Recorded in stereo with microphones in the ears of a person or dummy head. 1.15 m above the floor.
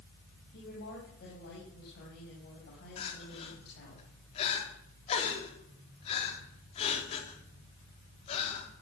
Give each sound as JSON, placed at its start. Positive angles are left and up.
{"t": 0.5, "sound": "a woman speaking", "side_deg": 60, "distance_m": 6.0}
{"t": 3.0, "sound": "crying", "side_deg": 35, "distance_m": 3.5}